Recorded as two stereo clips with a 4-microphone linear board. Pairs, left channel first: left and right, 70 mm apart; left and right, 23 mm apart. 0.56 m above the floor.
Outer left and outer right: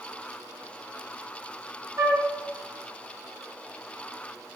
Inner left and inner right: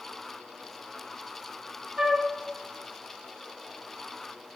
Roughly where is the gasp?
I don't hear a gasp.